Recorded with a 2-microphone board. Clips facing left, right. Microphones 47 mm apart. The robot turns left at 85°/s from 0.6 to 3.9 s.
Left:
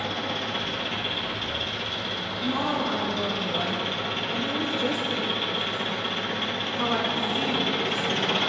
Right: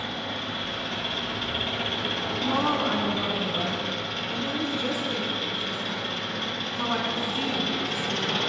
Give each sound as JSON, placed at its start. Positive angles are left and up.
{"t": 0.0, "sound": "an engine running", "azimuth_deg": 70, "distance_m": 1.5}
{"t": 2.4, "sound": "a woman speaking", "side_deg": -15, "distance_m": 1.5}